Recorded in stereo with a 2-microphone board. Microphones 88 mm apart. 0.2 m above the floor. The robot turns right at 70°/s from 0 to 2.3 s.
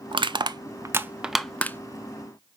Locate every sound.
0.1 s crushing: 75° right (ahead or behind), 0.5 m; by 2.6 s 60° left (ahead or behind), 0.5 m